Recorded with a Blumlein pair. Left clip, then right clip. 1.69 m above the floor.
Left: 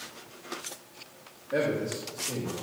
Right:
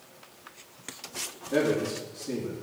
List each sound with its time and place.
1.5 s a man speaking: 20° right, 2.5 m